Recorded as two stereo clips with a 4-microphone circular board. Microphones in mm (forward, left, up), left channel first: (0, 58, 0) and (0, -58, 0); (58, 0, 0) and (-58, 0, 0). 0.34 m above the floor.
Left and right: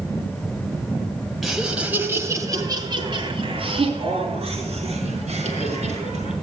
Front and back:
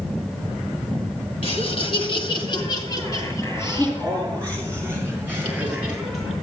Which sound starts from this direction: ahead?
Laughter, at 1.4 s.